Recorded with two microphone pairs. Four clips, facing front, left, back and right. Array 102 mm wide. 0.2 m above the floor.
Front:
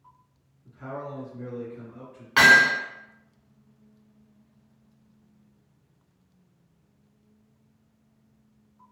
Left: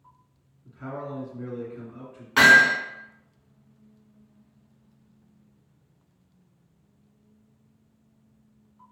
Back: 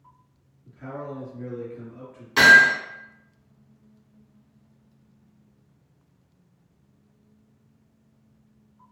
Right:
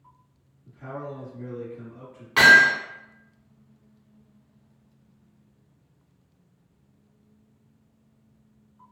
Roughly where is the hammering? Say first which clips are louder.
Right 1 dB, back 3 dB; ahead.